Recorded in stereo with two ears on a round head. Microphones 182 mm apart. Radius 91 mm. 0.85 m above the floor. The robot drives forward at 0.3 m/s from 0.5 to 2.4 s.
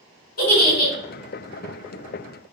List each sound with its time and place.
0.4 s a giggle: 50° left (ahead or behind), 1.9 m